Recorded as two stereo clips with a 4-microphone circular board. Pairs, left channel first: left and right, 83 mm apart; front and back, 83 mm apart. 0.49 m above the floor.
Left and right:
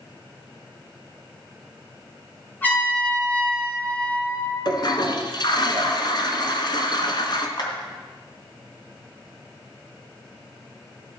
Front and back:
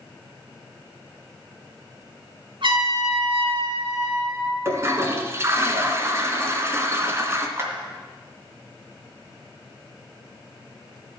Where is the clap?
120° left, 2.5 m.